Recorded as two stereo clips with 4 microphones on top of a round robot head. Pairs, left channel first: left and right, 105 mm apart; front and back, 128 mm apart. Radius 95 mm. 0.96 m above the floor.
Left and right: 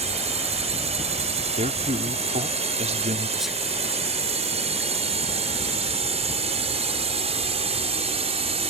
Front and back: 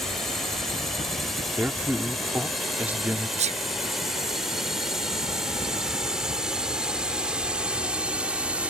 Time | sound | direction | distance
0.0 | a drone | 85° right | ?
1.6 | a man speaking | 100° right | ?
3.4 | a sneeze | straight behind | ?